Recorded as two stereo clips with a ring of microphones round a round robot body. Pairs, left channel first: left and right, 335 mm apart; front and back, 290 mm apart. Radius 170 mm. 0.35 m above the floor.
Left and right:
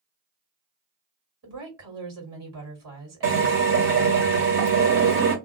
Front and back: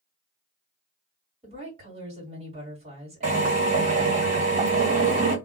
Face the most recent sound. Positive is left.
turn(degrees=-125)